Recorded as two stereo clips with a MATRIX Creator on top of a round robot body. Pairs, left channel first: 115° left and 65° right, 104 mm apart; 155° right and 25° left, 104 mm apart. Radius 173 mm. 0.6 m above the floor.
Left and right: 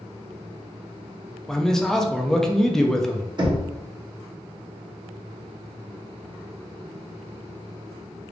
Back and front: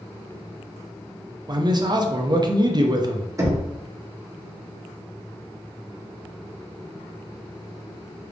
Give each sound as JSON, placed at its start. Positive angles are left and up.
{"t": 1.5, "sound": "a man speaking", "azimuth_deg": 30, "distance_m": 0.8}
{"t": 3.4, "sound": "knocking", "azimuth_deg": -35, "distance_m": 1.1}